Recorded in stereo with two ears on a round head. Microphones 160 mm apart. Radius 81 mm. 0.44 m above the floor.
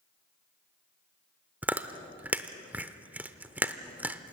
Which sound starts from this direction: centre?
Chewing, at 1.6 s.